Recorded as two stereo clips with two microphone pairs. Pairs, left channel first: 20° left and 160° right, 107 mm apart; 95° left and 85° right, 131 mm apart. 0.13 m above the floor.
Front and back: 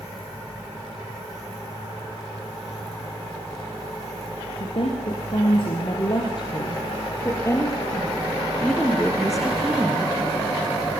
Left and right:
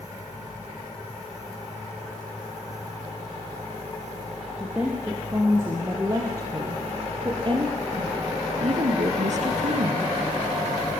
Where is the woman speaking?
5° right, 5.5 m; by 10.1 s 85° right, 4 m.